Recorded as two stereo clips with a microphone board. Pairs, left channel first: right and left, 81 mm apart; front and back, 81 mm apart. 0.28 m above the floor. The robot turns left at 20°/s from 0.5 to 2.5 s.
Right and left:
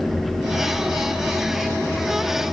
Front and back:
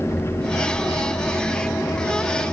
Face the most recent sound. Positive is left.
No sound to turn to.